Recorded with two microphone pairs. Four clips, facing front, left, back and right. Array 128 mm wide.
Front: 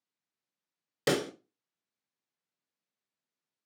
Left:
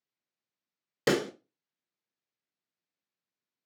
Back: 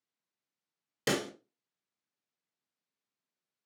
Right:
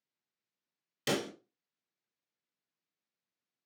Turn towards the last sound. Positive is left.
turn(degrees=75)